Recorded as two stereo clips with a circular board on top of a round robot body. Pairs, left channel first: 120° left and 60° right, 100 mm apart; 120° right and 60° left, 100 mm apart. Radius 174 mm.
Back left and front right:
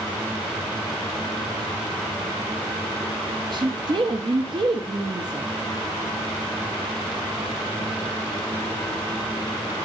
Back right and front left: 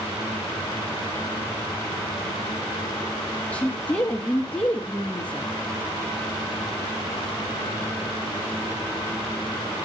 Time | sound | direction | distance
3.5 | a woman speaking | 50° right | 1.3 m